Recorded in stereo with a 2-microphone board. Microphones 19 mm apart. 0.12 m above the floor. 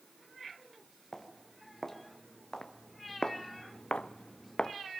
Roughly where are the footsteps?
Centre.